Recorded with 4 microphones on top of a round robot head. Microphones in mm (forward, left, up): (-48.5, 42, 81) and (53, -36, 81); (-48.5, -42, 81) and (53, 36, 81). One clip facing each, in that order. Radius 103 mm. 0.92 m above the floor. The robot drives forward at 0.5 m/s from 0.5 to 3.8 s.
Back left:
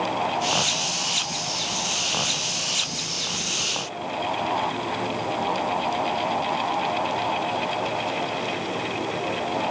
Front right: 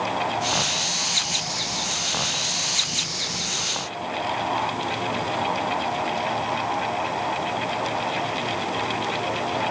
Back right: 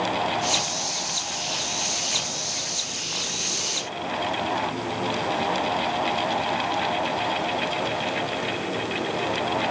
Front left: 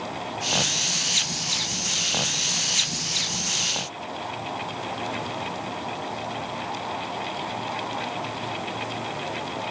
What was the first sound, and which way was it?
Only background noise.